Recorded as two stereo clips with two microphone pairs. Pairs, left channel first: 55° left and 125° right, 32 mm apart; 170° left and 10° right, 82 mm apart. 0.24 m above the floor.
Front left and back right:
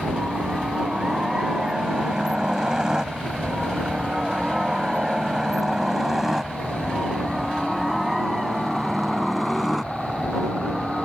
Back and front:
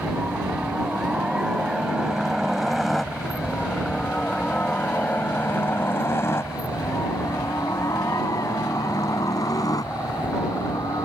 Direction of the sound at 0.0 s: 70° right.